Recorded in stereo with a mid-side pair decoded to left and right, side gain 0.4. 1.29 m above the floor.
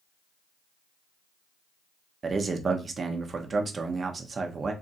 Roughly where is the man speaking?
Ahead right.